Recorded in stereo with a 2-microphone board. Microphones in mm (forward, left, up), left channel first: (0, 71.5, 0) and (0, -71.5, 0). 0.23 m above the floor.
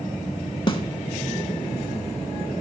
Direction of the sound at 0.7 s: 35° left (ahead or behind).